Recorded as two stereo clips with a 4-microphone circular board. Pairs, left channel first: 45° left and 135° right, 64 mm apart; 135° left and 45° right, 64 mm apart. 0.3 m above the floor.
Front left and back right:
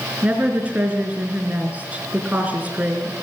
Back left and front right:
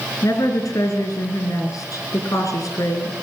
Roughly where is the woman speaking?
Behind.